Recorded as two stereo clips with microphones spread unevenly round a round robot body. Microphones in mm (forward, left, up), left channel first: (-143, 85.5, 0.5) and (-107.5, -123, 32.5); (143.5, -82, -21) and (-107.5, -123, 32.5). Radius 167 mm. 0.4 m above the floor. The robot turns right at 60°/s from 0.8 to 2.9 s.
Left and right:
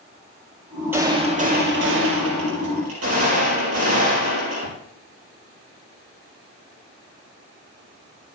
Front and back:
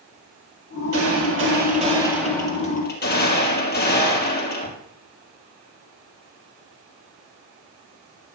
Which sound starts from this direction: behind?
A gunshot, at 0.9 s.